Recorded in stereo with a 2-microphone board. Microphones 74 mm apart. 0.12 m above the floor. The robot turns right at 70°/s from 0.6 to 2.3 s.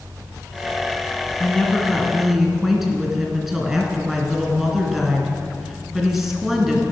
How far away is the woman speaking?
About 1.4 m.